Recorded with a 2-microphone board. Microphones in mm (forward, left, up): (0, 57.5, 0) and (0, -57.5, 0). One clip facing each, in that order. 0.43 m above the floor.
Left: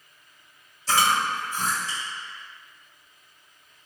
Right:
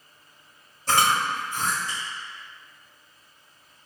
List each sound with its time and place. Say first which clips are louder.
0.9 s chewing: even; 55° right (ahead or behind), 1.6 m